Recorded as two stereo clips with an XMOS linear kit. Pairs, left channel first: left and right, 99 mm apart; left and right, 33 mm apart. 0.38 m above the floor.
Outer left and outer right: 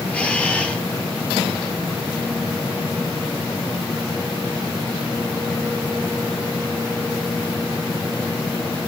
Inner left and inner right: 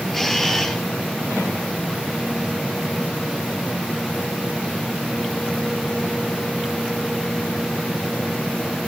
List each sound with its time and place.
0.1 s a camera shutter: 15° left (ahead or behind), 5 m